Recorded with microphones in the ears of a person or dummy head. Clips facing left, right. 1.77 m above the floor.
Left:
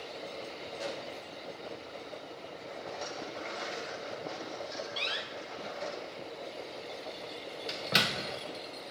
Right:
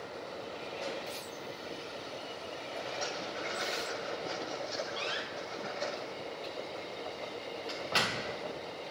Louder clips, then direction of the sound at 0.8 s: Left 1 dB; 85° left.